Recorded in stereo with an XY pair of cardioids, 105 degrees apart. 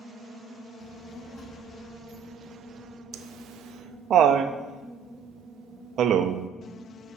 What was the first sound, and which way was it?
A child speaking, 70° left.